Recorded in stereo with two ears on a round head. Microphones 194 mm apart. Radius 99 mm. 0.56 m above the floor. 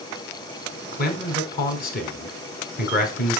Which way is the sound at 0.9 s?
45° left (ahead or behind).